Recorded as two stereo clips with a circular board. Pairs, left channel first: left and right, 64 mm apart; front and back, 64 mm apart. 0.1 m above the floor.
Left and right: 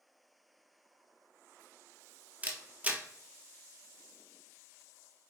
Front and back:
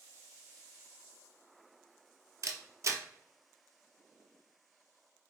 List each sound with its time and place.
2.4 s a camera shutter: 155° right, 0.6 m